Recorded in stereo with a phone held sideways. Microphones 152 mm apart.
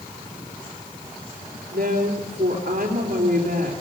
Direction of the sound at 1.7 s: 85° right.